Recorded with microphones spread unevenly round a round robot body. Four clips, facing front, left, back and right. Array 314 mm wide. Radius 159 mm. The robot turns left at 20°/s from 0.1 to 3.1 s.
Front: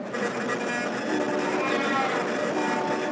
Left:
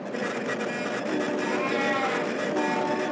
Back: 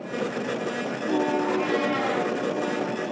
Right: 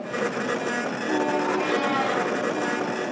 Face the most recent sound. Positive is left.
turn(degrees=-170)